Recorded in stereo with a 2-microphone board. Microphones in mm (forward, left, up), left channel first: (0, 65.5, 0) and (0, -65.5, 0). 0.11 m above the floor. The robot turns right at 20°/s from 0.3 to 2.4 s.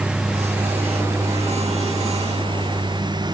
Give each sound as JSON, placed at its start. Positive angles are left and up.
{"t": 0.0, "sound": "a lawn mower", "side_deg": -5}